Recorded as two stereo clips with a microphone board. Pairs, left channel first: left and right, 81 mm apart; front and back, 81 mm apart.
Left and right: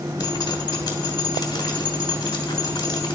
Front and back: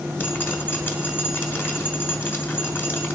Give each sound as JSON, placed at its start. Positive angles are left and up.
{"t": 0.2, "sound": "dripping", "azimuth_deg": 65, "distance_m": 1.3}